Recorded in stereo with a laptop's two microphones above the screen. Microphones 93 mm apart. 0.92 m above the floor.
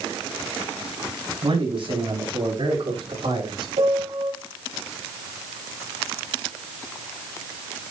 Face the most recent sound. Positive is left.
turn(degrees=-75)  # may be behind; listen again after turning